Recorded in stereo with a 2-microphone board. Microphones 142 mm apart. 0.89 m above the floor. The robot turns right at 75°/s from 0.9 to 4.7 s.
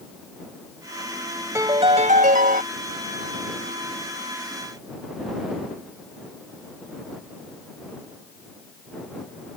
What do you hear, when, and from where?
1.6 s a piano: 160° right; by 2.6 s 80° right